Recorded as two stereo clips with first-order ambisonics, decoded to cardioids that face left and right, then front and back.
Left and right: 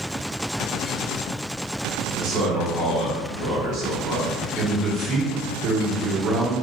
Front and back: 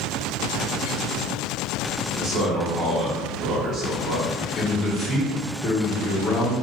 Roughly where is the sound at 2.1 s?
Behind right.